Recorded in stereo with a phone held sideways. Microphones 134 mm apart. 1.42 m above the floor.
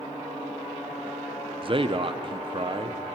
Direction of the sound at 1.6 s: 40° right (ahead or behind).